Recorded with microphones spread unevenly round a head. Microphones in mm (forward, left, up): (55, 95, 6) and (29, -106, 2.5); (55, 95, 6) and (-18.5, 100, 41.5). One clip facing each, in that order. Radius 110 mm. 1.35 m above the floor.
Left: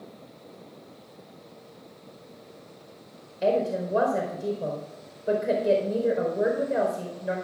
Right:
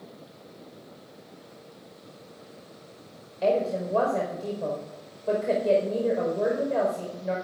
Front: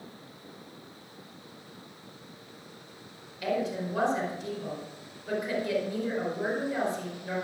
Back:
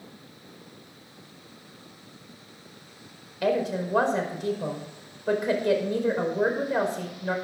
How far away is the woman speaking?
About 4.5 m.